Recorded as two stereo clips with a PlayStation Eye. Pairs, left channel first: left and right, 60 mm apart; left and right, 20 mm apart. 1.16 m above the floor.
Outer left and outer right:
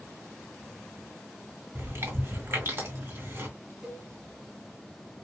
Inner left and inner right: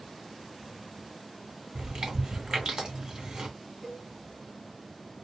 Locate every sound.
1.8 s chewing: 45° right (ahead or behind), 2 m
3.8 s a cowbell: 15° right (ahead or behind), 1.5 m